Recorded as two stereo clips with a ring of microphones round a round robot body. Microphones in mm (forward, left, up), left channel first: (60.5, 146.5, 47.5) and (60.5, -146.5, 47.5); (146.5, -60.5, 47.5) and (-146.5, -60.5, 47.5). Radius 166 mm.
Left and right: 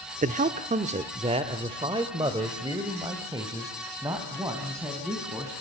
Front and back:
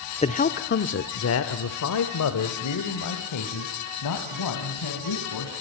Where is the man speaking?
55° right, 0.9 m; by 5.5 s 10° right, 3.5 m.